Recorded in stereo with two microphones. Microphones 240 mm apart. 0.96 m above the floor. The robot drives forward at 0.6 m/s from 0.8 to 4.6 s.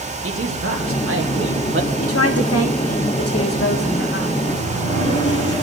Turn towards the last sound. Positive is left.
turn(degrees=15)  # may be behind; listen again after turning